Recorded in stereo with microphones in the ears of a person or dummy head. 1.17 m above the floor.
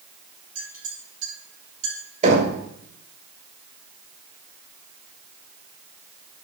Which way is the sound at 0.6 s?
40° right (ahead or behind).